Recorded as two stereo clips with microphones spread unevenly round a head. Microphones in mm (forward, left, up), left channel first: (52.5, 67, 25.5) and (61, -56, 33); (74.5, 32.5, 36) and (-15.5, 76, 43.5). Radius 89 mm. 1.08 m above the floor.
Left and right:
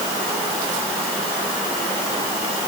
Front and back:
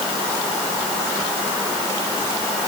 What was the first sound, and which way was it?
Only background noise.